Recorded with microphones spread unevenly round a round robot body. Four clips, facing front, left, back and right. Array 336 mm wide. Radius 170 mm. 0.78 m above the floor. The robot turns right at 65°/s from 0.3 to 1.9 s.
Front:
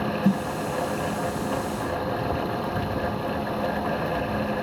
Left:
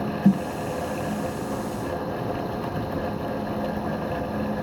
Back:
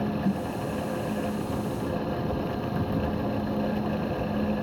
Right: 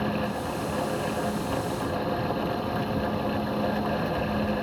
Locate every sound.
0.2 s a snare drum: 65° left; by 0.5 s 80° left